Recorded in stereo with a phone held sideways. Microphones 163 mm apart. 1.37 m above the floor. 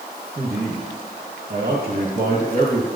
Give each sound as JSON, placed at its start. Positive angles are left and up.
{"t": 0.3, "sound": "a man speaking", "side_deg": -80, "distance_m": 2.0}